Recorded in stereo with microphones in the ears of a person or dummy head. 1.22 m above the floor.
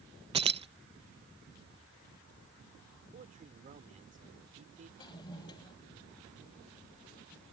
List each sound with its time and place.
0.3 s keys jangling: 20° right (ahead or behind)
3.1 s a man speaking: 35° right (ahead or behind)
5.0 s a toilet flushing: 25° left (ahead or behind)